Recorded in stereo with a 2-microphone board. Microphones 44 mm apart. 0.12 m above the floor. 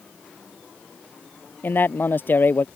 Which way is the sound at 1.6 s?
50° left (ahead or behind).